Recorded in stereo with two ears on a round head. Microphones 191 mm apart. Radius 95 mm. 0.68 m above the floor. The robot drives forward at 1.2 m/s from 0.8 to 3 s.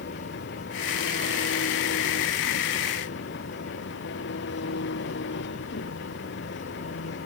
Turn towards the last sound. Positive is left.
turn(degrees=55)  # may be behind; listen again after turning